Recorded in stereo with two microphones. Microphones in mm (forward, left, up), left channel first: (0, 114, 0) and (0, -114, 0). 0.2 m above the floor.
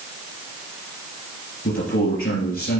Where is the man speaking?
65° left (ahead or behind), 3 m.